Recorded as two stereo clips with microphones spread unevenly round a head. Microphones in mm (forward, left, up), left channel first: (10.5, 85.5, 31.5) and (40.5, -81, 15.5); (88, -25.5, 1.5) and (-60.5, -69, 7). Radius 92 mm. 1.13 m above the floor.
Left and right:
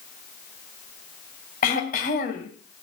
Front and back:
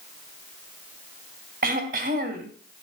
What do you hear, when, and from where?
1.6 s throat clearing: 150° left, 3 m